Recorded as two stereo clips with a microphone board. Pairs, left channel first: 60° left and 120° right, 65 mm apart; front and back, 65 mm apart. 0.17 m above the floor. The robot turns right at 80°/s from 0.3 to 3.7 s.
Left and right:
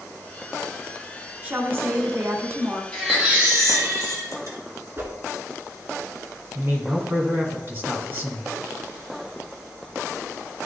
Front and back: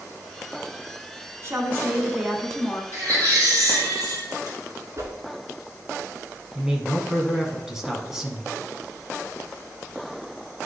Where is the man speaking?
100° right, 1.6 m.